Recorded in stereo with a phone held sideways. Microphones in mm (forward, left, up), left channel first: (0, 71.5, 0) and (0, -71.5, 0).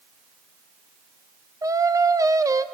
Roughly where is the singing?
Right.